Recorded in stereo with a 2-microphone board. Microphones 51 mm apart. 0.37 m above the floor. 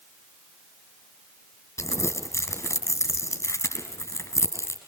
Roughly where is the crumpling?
Left.